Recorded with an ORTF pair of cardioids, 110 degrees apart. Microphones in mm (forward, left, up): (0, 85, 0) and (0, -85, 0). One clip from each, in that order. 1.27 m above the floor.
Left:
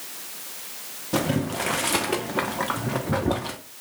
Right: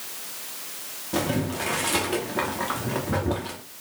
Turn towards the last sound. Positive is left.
turn(degrees=25)